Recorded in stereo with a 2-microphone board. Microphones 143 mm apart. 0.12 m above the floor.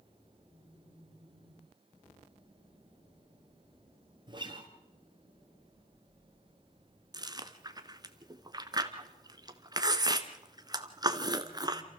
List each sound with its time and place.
4.3 s a guitar: 30° right (ahead or behind), 2.5 m
7.1 s chewing: 30° right (ahead or behind), 1.3 m